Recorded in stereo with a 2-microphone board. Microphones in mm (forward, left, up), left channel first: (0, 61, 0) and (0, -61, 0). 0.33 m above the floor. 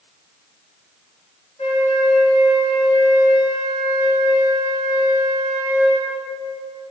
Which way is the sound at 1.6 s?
60° left (ahead or behind).